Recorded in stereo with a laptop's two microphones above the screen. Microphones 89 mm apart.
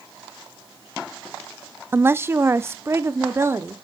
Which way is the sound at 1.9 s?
25° right (ahead or behind).